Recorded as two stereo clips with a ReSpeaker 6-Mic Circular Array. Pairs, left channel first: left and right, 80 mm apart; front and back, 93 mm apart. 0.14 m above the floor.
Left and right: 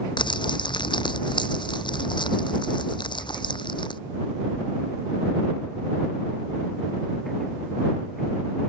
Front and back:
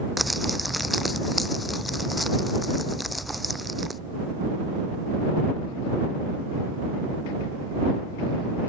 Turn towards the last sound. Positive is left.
turn(degrees=90)